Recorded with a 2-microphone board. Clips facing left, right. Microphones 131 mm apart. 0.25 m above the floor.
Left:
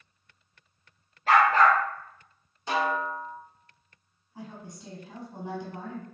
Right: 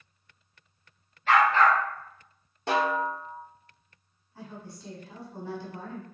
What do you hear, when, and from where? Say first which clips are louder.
1.3 s a dog barking: left 1 dB; 40° left (ahead or behind), 1.3 m
2.7 s a snare drum: right 2 dB; 70° right (ahead or behind), 0.9 m
4.3 s a woman speaking: left 1 dB; 20° left (ahead or behind), 1.1 m